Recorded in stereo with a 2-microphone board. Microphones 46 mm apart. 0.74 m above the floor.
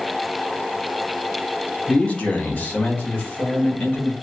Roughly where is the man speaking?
Left.